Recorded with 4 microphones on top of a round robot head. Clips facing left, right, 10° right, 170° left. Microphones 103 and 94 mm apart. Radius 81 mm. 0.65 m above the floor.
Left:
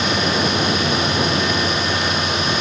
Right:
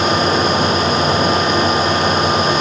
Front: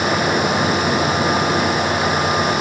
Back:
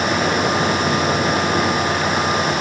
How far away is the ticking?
No ticking in this recording.